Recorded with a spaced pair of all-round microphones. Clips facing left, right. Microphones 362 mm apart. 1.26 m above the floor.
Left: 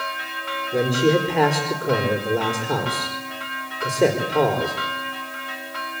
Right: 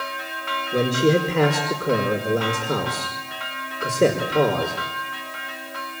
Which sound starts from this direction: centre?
A man speaking, at 0.7 s.